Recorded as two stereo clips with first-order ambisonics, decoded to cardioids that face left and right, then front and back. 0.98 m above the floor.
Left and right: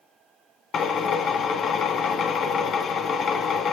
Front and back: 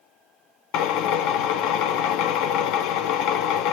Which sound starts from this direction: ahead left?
A drill, at 0.7 s.